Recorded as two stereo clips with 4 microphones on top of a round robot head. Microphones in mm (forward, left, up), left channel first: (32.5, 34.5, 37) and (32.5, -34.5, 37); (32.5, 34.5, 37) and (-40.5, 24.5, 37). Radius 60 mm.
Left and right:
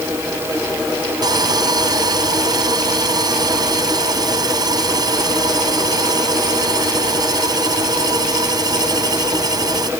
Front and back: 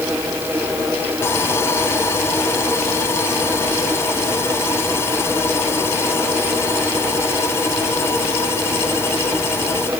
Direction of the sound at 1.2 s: 60° right.